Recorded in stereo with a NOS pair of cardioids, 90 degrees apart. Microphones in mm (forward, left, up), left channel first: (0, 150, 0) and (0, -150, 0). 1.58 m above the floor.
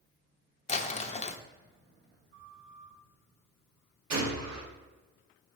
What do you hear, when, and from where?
0.7 s crumpling: 20° left, 0.7 m
2.3 s a flute: 45° right, 1.9 m
4.1 s a gunshot: 60° right, 2 m